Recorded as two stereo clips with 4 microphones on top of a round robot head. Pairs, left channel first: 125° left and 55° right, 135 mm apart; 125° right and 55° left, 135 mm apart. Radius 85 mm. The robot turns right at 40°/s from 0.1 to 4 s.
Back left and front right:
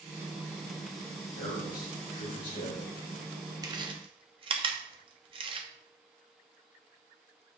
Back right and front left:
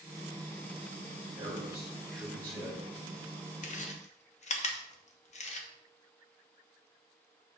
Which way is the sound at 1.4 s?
120° left.